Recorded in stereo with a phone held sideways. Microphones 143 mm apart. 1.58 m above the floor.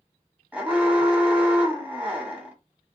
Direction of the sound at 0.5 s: 10° right (ahead or behind).